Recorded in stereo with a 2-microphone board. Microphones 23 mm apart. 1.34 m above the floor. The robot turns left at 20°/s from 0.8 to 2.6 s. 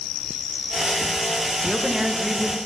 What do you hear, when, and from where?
1.6 s a woman speaking: 25° right (ahead or behind), 1.1 m; by 2.6 s 10° right (ahead or behind), 1.1 m